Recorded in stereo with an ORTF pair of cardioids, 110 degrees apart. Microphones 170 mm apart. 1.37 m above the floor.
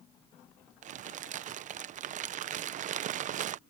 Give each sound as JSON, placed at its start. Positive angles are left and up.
{"t": 0.8, "sound": "crumpling", "azimuth_deg": -50}